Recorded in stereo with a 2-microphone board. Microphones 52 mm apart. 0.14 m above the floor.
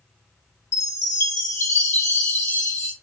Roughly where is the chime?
Left.